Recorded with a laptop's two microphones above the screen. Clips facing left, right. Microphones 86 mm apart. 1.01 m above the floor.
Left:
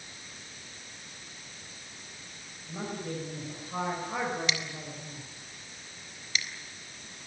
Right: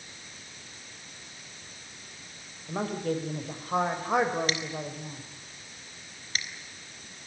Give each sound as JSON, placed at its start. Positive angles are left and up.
{"t": 2.7, "sound": "a woman speaking", "side_deg": -65, "distance_m": 5.5}
{"t": 4.5, "sound": "scissors", "side_deg": -45, "distance_m": 4.5}